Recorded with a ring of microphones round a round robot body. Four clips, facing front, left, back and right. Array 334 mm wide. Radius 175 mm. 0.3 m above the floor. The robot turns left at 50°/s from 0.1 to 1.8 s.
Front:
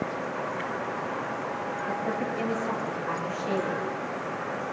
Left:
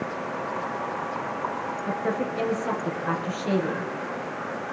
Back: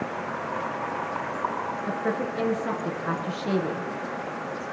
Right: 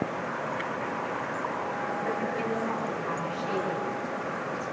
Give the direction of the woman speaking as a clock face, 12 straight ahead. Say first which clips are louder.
Left 5 dB, back 2 dB; 7 o'clock.